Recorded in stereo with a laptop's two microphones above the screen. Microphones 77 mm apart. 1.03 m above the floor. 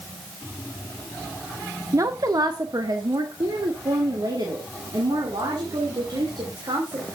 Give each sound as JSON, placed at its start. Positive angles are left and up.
{"t": 1.9, "sound": "a woman speaking", "side_deg": -45, "distance_m": 0.6}